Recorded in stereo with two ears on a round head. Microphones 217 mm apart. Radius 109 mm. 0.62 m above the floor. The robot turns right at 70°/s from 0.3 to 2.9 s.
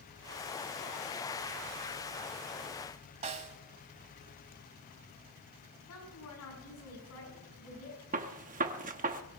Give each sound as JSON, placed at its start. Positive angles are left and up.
{"t": 3.2, "sound": "a snare drum", "side_deg": -25, "distance_m": 1.0}
{"t": 5.9, "sound": "a woman speaking", "side_deg": 70, "distance_m": 7.0}
{"t": 8.1, "sound": "a gunshot", "side_deg": -30, "distance_m": 0.9}